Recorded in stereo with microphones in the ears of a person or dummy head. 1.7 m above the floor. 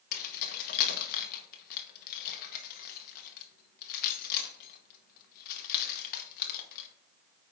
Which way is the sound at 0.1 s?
50° left (ahead or behind).